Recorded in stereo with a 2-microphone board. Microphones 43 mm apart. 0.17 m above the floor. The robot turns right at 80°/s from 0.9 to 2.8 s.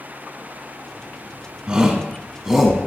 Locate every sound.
1.7 s a shout: 20° right (ahead or behind), 1.0 m; by 2.9 s centre (ahead or behind), 1.0 m